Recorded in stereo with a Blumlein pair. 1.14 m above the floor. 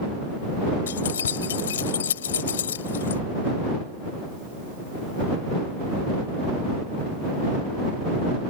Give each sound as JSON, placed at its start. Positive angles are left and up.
{"t": 0.9, "sound": "keys jangling", "azimuth_deg": 65}